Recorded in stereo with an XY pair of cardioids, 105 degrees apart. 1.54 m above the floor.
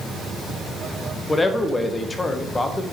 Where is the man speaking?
25° left, 1.4 m.